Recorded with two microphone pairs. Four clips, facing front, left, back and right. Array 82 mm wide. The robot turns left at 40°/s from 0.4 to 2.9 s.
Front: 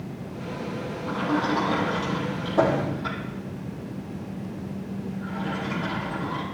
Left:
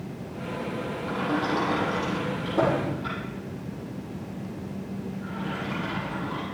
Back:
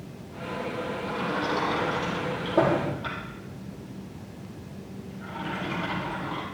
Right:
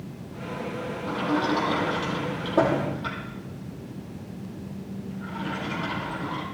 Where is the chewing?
I don't hear chewing.